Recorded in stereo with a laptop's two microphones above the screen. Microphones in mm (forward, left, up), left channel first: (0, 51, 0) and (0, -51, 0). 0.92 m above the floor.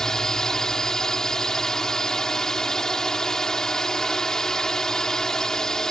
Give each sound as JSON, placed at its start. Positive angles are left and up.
{"t": 0.0, "sound": "a drone", "side_deg": 5}